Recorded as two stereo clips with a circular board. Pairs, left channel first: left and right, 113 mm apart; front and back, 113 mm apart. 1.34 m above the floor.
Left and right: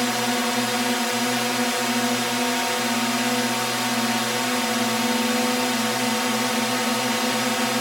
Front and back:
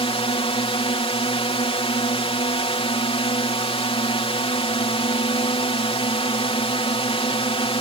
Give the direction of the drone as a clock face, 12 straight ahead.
12 o'clock.